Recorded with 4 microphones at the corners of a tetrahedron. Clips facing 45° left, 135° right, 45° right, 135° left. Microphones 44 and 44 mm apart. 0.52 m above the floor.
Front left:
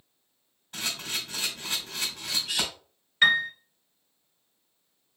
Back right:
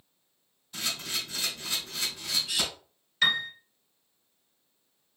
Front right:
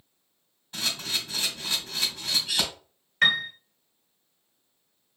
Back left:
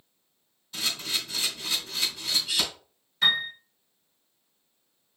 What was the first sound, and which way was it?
A camera shutter, 5° left.